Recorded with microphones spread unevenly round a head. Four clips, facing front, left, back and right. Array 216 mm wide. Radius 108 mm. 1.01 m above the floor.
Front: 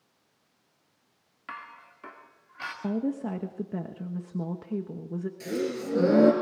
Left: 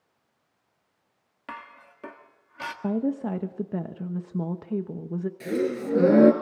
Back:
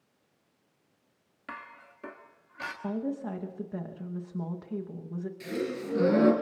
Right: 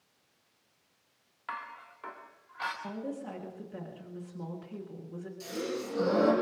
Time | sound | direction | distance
1.5 | dishes clattering | 125° left | 1.5 m
2.8 | a woman speaking | 65° left | 1.2 m
5.4 | a gasp | 70° left | 3 m